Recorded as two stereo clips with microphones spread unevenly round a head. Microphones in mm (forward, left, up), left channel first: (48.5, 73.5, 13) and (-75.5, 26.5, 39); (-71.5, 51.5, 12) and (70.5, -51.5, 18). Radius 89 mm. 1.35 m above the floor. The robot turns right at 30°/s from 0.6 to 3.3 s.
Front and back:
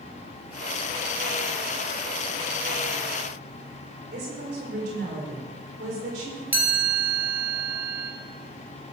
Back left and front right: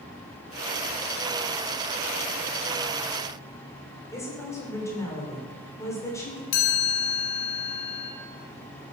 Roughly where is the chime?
Behind left.